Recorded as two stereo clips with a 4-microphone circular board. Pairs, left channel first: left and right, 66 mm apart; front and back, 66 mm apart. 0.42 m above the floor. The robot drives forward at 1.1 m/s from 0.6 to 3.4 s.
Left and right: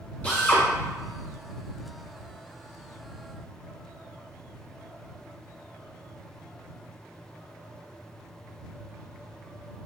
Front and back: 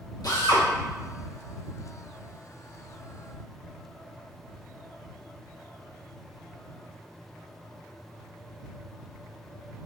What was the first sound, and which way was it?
A drill, 20° left.